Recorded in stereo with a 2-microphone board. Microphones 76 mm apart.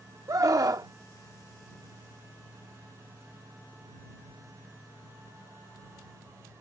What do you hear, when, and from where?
0.3 s a scream: 50° right (ahead or behind)